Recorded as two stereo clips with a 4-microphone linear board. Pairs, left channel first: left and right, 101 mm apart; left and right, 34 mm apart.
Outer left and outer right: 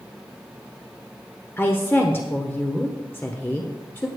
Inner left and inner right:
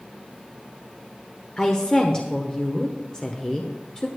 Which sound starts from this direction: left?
A woman speaking, at 1.6 s.